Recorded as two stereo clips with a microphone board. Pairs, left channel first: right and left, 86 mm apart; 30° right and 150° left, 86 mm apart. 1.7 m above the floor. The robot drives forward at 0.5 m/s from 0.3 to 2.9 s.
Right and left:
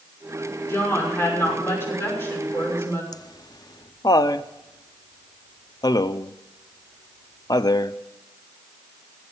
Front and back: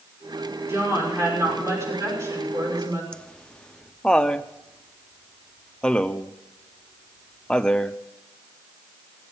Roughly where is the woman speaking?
Behind right.